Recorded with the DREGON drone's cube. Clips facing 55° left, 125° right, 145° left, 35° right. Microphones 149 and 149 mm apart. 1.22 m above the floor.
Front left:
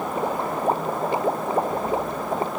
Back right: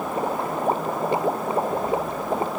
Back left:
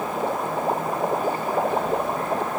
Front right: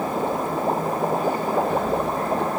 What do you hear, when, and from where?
Only background noise.